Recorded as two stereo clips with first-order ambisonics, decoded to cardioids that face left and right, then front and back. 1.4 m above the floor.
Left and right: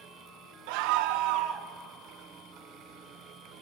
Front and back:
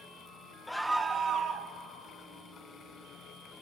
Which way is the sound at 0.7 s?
85° right.